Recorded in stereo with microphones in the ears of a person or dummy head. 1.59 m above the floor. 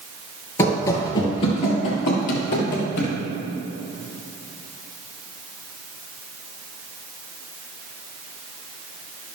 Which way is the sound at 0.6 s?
20° left (ahead or behind).